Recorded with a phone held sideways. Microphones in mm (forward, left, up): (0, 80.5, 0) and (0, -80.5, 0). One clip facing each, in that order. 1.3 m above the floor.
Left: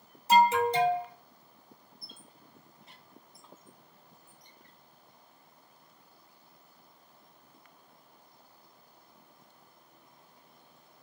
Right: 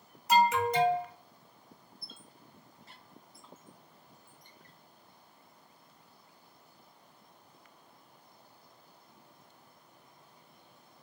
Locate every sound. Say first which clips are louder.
0.3 s an alarm: left 3 dB; 30° left (ahead or behind), 0.7 m
2.0 s a squeak: even; 20° left (ahead or behind), 0.7 m